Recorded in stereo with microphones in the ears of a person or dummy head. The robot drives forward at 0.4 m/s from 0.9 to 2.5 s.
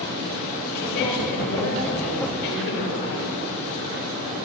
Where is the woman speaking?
55° left (ahead or behind), 6.5 m; by 3.3 s 60° left (ahead or behind), 6.5 m.